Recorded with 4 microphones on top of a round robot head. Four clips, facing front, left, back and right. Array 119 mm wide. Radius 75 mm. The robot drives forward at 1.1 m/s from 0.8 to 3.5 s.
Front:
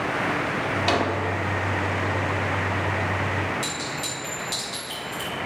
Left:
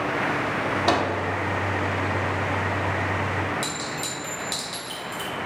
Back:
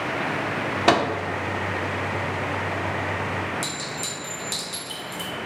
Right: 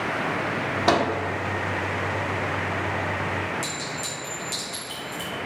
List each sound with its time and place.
0.9 s a microwave: 170° right, 1.1 m
3.6 s a clink: 145° left, 3 m